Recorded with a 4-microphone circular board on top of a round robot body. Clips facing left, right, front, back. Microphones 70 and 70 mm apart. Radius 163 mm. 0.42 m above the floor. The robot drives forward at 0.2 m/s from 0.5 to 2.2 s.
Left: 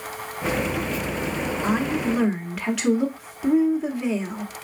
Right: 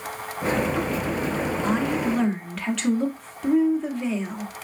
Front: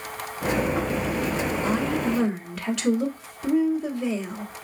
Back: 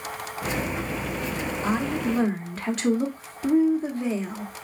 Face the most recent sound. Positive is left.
turn(degrees=170)